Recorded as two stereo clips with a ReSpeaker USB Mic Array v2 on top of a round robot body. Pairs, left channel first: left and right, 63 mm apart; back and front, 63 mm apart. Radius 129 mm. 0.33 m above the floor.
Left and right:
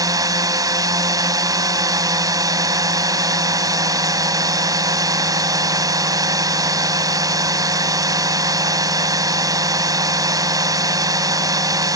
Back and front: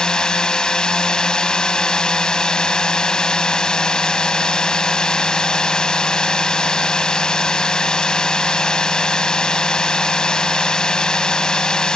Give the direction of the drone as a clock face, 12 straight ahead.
3 o'clock.